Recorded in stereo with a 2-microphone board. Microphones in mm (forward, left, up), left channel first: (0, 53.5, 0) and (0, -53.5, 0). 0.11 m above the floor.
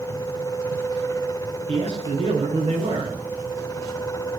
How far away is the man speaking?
About 9.5 m.